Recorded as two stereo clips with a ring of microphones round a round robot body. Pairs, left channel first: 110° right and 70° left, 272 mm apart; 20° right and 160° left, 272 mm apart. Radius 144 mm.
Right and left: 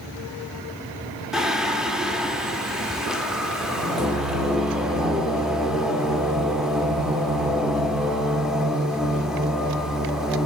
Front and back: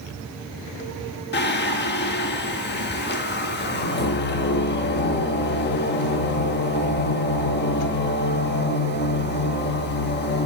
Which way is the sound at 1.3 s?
20° right.